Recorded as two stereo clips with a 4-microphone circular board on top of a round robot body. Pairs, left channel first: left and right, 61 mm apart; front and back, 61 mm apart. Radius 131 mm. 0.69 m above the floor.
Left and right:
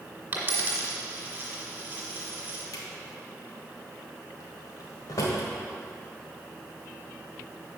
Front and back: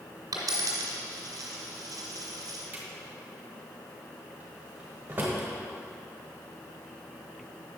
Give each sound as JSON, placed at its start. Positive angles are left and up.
{"t": 0.3, "sound": "a dropped coin", "azimuth_deg": -155, "distance_m": 1.8}
{"t": 2.7, "sound": "a drawer", "azimuth_deg": 120, "distance_m": 1.4}